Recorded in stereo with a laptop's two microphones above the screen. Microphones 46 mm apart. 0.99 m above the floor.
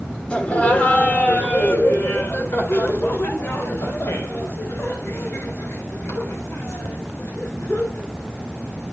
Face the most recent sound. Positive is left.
turn(degrees=85)